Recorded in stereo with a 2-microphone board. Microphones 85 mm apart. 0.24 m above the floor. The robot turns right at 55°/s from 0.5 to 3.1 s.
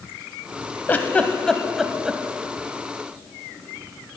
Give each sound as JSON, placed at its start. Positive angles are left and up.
{"t": 0.9, "sound": "a giggle", "side_deg": 20, "distance_m": 0.6}